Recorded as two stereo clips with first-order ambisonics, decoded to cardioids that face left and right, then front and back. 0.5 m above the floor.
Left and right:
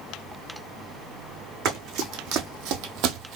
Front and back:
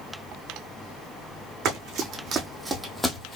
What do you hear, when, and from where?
1.6 s running footsteps: 130° right, 1.7 m; by 3.4 s 60° right, 0.9 m